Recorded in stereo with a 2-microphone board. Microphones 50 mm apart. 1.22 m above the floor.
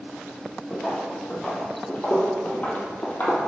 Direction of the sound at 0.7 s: 5° left (ahead or behind).